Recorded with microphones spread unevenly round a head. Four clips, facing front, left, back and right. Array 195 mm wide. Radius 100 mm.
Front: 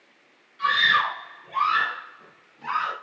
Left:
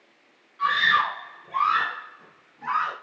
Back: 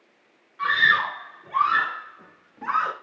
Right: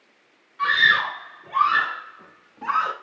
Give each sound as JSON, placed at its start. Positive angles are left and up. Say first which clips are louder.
{"t": 0.6, "sound": "a scream", "louder": "right 1 dB, even", "azimuth_deg": -130, "distance_m": 3.0}